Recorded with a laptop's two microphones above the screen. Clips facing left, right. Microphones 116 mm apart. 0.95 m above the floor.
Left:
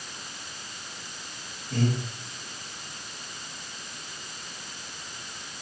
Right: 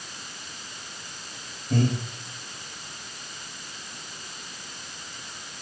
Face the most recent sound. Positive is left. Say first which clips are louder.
# right 3 dB
turn(degrees=-60)  # may be behind; listen again after turning